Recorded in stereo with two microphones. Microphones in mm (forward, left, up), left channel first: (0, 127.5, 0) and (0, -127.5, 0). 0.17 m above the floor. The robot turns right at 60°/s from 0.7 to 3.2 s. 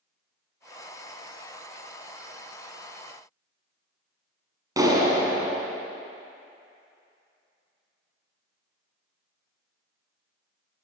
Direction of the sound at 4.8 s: 15° right (ahead or behind).